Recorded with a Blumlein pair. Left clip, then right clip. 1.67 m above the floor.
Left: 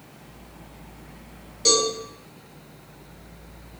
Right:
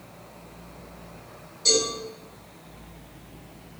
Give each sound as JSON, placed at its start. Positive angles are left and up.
{"t": 1.6, "sound": "a cowbell", "azimuth_deg": 30, "distance_m": 1.4}